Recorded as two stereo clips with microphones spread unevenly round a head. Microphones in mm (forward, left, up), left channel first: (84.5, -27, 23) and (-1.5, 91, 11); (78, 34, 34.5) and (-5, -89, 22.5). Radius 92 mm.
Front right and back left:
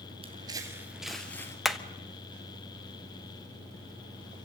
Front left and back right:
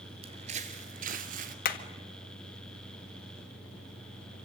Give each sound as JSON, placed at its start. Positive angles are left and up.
{"t": 0.2, "sound": "footsteps", "azimuth_deg": 180, "distance_m": 1.9}
{"t": 1.6, "sound": "hammering", "azimuth_deg": 35, "distance_m": 1.7}